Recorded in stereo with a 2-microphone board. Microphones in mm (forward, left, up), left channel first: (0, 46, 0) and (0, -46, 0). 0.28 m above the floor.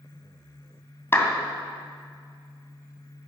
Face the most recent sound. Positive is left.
turn(degrees=25)  # may be behind; listen again after turning